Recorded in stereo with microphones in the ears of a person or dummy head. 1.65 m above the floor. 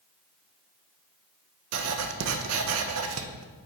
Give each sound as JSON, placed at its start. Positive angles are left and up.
{"t": 1.7, "sound": "writing", "side_deg": -75, "distance_m": 0.9}